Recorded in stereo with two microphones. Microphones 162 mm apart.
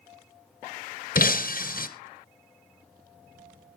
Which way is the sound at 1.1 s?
65° left (ahead or behind).